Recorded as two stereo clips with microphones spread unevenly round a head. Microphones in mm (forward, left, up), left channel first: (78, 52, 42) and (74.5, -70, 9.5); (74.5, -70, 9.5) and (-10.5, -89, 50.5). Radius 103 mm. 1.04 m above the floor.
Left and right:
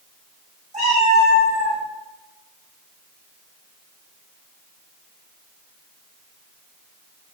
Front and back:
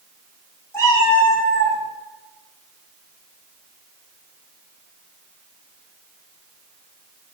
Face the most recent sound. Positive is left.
turn(degrees=-60)